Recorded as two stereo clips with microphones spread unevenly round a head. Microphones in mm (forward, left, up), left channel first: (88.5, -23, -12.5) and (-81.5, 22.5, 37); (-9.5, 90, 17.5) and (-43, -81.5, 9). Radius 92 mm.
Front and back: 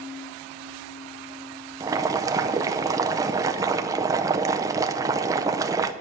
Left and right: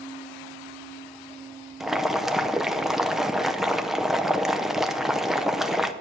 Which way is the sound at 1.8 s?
170° left.